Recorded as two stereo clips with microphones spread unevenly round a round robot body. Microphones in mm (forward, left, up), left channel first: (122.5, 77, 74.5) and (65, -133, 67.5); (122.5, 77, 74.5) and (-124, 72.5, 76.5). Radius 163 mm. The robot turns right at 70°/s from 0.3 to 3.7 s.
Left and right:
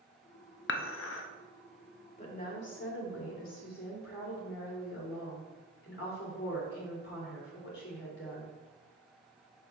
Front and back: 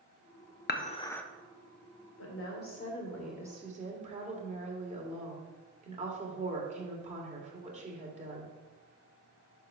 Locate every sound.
0.7 s dishes clattering: 50° left, 0.8 m; by 1.2 s 85° left, 0.8 m
2.2 s a woman speaking: 15° left, 2.5 m; by 8.5 s 120° left, 2.5 m